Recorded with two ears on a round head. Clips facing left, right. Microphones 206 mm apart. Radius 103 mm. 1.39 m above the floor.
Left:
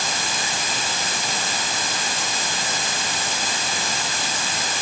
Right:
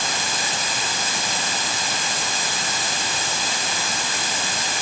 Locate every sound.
Only background noise.